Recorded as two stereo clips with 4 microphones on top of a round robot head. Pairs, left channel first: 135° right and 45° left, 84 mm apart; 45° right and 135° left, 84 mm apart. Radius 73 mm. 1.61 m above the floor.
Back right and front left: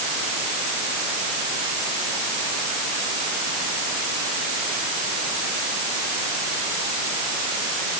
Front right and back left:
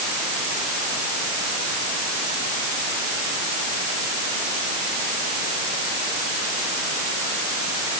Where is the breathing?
No breathing in this recording.